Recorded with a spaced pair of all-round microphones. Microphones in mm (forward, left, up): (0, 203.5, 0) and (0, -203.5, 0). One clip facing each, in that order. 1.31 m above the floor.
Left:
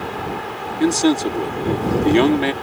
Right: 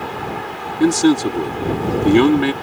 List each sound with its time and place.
0.8 s a man speaking: 25° right (ahead or behind)